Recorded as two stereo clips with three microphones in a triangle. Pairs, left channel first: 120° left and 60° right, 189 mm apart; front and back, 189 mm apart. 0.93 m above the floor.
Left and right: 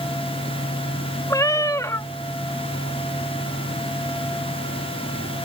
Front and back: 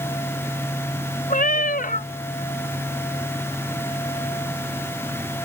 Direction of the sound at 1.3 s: 50° left.